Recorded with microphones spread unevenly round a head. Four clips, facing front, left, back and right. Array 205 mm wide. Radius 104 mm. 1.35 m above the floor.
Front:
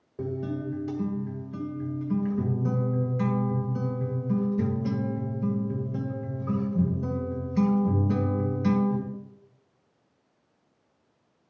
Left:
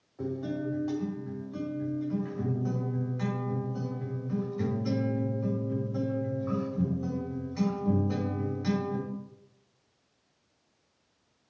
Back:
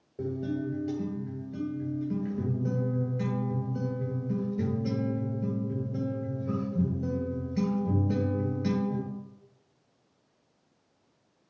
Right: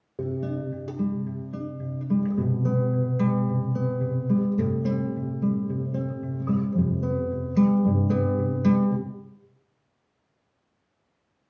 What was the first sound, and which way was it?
A guitar, 65° right.